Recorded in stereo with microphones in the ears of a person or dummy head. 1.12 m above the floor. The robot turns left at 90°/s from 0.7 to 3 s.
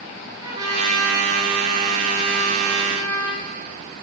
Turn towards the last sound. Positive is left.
turn(degrees=125)